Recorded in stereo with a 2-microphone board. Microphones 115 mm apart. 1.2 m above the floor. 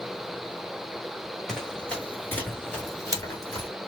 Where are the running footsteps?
5° left (ahead or behind), 1.5 m; by 3.7 s 35° left (ahead or behind), 1.4 m.